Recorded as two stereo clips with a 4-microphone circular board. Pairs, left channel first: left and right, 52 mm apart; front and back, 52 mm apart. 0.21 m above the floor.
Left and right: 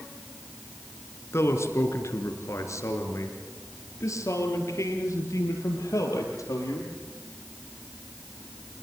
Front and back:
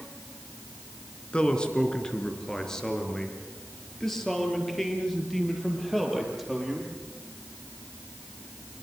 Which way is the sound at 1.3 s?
65° left.